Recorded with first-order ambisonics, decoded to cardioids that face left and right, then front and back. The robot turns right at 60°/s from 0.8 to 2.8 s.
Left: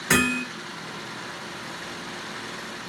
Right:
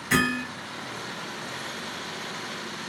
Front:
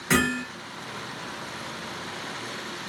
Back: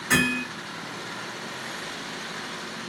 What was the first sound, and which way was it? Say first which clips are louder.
Hammering: left 2 dB, back 1 dB; 80° left.